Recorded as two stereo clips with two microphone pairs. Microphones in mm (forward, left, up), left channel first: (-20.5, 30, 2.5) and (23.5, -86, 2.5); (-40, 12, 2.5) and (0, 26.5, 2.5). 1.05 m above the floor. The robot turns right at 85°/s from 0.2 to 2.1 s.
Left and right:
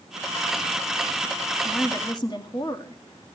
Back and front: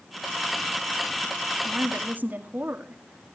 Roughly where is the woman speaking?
Ahead.